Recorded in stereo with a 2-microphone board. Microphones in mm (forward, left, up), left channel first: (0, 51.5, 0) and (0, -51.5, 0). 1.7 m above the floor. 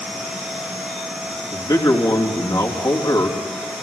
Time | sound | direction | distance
1.5 | a man speaking | 45° left (ahead or behind) | 3 m